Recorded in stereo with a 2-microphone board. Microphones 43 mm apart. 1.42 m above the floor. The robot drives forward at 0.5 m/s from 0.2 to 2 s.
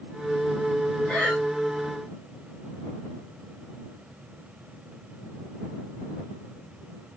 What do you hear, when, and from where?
1.1 s breathing: 25° left (ahead or behind), 1.6 m; by 1.4 s 20° left (ahead or behind), 1.7 m